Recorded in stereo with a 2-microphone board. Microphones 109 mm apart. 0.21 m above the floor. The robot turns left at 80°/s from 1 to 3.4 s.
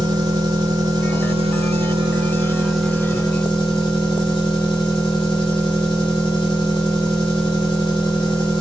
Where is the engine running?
45° right, 2.0 m; by 8.6 s 125° left, 2.0 m.